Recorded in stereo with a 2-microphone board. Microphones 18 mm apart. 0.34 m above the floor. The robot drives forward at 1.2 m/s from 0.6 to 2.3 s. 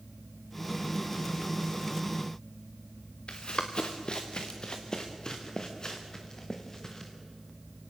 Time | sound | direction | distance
3.3 | running footsteps | 55° left (ahead or behind) | 2.5 m